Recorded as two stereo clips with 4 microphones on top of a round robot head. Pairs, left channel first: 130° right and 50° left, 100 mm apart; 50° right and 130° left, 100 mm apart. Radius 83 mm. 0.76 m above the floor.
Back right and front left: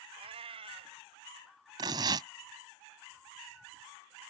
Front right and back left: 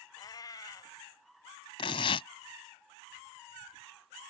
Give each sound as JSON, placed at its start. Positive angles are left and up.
{"t": 0.2, "sound": "a cat meowing", "azimuth_deg": 10}
{"t": 1.8, "sound": "tearing paper", "azimuth_deg": -5}